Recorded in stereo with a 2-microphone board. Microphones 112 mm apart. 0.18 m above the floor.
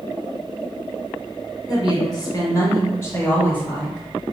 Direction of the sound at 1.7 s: 40° left (ahead or behind).